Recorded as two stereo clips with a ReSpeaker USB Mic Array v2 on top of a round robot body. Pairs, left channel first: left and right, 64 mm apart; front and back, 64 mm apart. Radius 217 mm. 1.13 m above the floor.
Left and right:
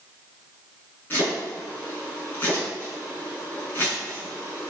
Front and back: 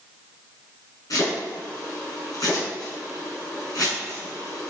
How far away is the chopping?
About 5 m.